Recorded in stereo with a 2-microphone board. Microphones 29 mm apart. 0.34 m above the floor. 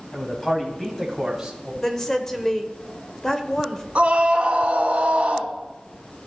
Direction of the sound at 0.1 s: 30° left (ahead or behind).